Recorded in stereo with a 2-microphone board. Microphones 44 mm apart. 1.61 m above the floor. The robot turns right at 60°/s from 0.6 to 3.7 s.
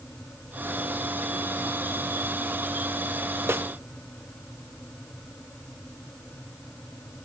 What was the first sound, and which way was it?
A snare drum, 65° right (ahead or behind).